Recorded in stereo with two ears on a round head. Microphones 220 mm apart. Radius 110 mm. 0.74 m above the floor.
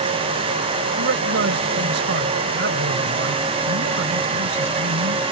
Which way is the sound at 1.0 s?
50° right (ahead or behind).